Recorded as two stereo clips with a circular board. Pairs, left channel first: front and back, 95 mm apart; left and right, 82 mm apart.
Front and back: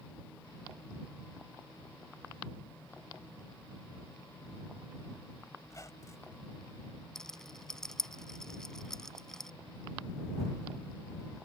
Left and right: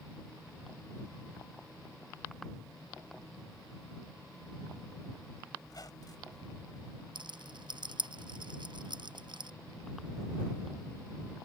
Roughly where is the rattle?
Right.